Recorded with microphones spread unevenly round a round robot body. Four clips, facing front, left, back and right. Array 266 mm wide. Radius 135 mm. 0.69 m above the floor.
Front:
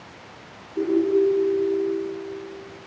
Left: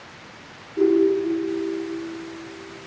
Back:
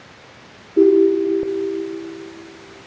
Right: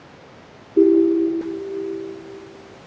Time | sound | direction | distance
0.8 | a ringtone | 125° right | 7 m